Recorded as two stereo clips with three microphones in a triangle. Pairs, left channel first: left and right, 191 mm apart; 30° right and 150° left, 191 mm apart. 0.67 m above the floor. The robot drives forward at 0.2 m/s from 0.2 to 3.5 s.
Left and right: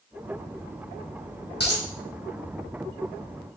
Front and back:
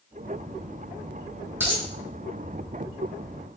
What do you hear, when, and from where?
1.6 s a dropped coin: 75° left, 1.5 m